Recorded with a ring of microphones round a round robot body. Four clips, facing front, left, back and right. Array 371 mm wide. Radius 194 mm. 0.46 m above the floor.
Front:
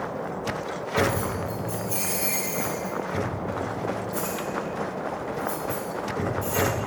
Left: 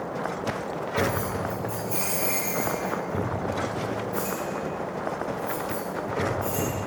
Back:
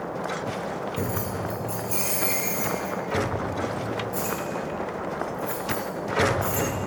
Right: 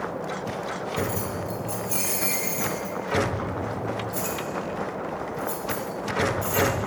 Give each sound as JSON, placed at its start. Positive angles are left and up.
{"t": 1.0, "sound": "keys jangling", "azimuth_deg": -90, "distance_m": 2.0}